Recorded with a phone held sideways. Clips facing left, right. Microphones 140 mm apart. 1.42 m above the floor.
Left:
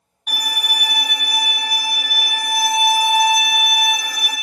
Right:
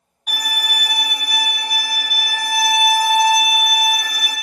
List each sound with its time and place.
0.3 s a violin: 10° left (ahead or behind), 1.3 m